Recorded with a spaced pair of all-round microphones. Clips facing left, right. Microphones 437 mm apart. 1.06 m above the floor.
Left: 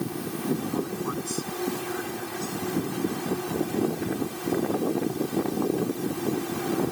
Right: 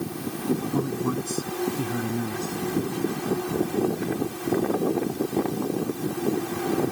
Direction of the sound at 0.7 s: 60° right (ahead or behind).